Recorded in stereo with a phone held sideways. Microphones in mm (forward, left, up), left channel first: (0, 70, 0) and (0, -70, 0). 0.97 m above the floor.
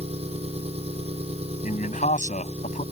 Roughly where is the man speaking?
Left.